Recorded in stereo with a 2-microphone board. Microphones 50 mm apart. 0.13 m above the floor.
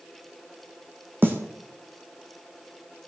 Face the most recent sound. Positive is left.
turn(degrees=-40)  # may be behind; listen again after turning